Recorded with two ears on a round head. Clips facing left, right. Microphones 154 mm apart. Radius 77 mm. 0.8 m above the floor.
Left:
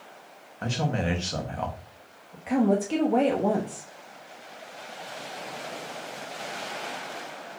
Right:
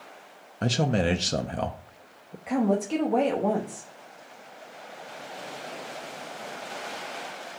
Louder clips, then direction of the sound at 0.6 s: Right 4 dB; 45° right (ahead or behind).